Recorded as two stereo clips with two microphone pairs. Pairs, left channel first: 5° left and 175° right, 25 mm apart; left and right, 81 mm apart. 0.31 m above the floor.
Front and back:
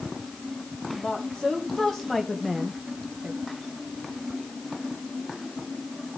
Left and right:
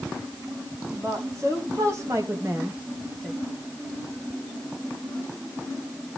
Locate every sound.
0.9 s a woman speaking: 45° right, 3 m; by 3.4 s 165° right, 1.6 m